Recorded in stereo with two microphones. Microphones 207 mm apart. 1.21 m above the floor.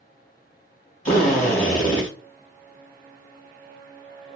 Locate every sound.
1.1 s a drill: 35° left (ahead or behind), 3 m